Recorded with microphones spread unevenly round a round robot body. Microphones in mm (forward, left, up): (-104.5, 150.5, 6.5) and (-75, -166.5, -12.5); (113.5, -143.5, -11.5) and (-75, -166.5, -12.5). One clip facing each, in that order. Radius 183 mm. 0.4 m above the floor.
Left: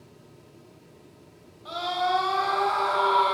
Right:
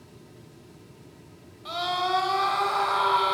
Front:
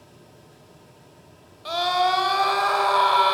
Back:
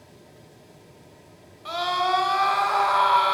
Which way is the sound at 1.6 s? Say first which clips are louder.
Left 1 dB, front 3 dB; 35° right.